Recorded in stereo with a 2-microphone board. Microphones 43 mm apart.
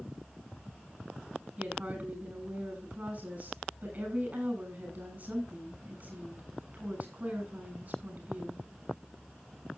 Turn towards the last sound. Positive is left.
turn(degrees=-45)  # may be behind; listen again after turning